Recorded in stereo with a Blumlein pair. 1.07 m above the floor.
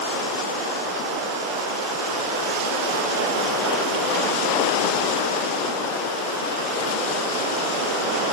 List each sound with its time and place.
Only background noise.